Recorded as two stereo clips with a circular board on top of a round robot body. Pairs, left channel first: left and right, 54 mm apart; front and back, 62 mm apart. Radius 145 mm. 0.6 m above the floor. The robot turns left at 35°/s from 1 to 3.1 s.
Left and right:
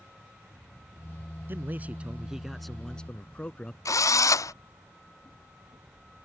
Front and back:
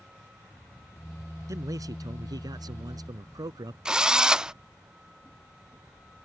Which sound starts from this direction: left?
A drill, at 3.9 s.